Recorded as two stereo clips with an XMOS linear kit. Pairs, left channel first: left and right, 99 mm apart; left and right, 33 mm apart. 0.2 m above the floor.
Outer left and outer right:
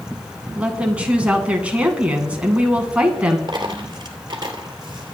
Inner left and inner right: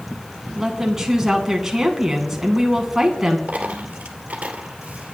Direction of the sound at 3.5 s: 45° right (ahead or behind).